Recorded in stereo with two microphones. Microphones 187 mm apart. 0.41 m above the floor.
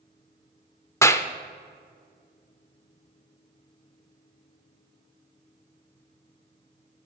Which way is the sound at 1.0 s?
15° left (ahead or behind).